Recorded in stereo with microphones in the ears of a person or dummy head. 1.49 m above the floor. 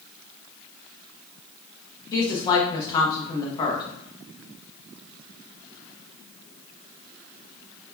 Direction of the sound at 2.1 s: 25° left (ahead or behind).